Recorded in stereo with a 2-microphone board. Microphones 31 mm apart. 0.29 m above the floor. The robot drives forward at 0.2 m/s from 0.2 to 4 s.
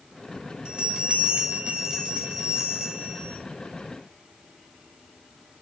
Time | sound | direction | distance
0.7 | a bell | 30° right (ahead or behind) | 0.6 m